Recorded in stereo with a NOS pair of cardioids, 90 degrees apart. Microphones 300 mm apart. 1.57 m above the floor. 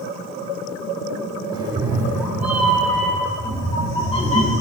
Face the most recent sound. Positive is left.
turn(degrees=25)